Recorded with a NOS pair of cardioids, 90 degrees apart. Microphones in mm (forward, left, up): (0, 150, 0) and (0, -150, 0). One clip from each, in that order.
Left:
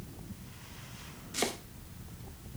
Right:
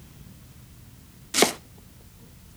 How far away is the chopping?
About 0.5 m.